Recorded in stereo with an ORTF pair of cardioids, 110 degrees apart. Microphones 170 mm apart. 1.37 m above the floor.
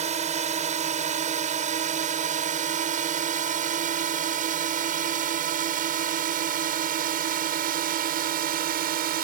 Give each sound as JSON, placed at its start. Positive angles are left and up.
{"t": 0.0, "sound": "a drone", "azimuth_deg": -45}